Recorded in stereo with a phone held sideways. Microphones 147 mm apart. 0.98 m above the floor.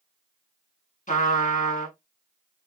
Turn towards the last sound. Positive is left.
turn(degrees=60)  # may be behind; listen again after turning